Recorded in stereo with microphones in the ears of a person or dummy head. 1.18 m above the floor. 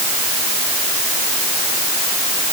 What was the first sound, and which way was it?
Only background noise.